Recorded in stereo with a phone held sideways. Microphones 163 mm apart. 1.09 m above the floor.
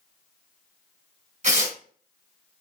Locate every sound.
1.4 s tearing paper: 55° right (ahead or behind), 1.8 m